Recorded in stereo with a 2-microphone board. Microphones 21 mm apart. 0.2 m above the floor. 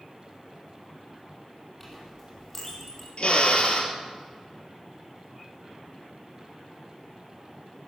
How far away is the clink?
About 5 m.